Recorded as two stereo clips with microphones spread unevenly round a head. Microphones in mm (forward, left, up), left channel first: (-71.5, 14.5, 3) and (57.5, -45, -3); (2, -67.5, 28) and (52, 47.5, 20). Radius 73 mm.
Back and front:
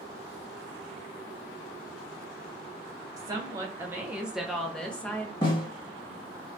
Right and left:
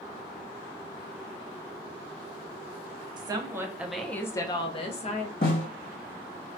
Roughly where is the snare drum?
Behind right.